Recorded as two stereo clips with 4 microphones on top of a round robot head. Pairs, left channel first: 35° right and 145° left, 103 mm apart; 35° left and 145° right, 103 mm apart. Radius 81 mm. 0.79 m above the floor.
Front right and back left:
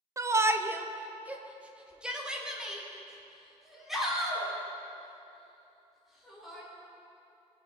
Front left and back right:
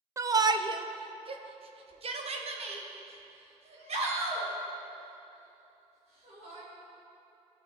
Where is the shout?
Straight behind, 0.6 m; by 6.6 s 125° right, 3.5 m.